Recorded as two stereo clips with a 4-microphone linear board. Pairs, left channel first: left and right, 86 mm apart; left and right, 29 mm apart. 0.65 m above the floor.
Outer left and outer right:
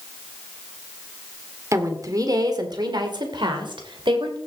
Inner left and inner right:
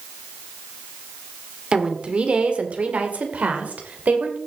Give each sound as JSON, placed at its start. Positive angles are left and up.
{"t": 1.7, "sound": "a woman speaking", "side_deg": -35, "distance_m": 1.7}